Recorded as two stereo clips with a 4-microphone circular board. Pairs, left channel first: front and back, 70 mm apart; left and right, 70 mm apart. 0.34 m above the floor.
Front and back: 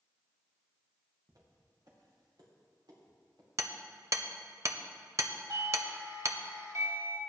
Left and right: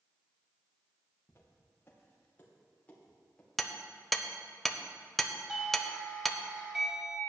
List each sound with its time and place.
1.3 s footsteps: 145° left, 3.5 m; by 3.5 s 165° left, 4.5 m
3.6 s hammering: 175° left, 0.6 m
5.5 s a doorbell: 175° right, 2.5 m